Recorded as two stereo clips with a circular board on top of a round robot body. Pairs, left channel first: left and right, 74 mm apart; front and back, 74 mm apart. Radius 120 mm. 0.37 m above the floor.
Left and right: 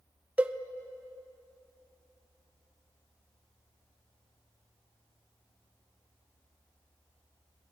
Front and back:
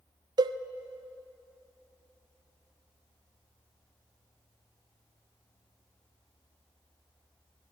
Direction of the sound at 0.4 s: 160° right.